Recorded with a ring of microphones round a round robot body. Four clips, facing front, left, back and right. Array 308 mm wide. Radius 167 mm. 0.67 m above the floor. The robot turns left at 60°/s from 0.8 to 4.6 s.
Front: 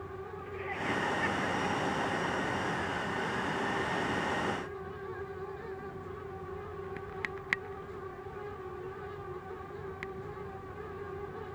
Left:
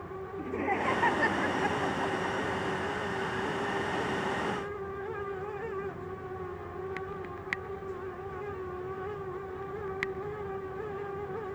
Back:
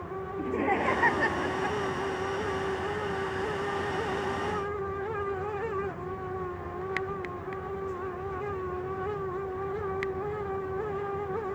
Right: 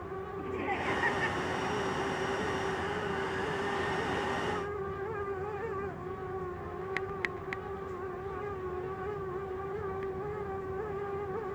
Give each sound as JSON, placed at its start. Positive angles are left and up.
{"t": 0.4, "sound": "laughter", "azimuth_deg": 160}